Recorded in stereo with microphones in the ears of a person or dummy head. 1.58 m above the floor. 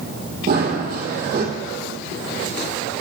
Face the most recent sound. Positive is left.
turn(degrees=-50)  # may be behind; listen again after turning